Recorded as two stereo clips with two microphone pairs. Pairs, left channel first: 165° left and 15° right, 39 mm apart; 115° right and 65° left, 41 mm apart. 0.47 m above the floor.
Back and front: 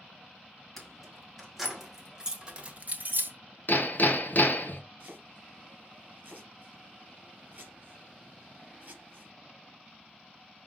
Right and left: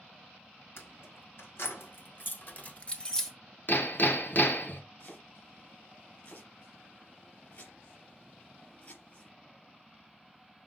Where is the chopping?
70° right, 4 m.